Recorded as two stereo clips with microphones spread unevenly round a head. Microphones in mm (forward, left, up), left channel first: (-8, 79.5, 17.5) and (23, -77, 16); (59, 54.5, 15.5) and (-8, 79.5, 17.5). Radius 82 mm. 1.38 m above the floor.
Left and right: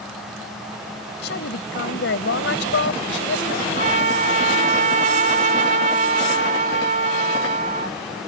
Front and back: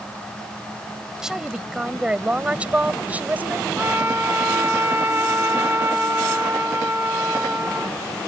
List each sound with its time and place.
1.2 s a woman speaking: 80° left; by 3.7 s 95° left
3.8 s a trumpet: 125° right